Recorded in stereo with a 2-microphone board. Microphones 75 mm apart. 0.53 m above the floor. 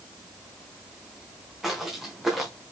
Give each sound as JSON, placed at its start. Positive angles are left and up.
{"t": 1.6, "sound": "footsteps", "side_deg": 0, "distance_m": 3.0}